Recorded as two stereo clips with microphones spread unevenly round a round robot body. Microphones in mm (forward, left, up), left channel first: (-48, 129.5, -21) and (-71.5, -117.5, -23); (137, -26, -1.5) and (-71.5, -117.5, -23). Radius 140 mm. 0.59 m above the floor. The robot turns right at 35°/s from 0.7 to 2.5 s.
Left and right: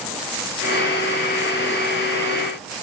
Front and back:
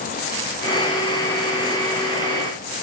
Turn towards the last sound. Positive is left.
No sound to turn to.